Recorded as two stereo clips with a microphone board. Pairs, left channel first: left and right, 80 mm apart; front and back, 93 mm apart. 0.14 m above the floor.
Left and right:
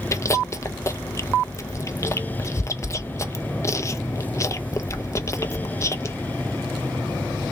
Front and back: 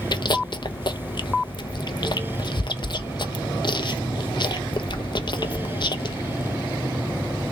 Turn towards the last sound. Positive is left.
turn(degrees=35)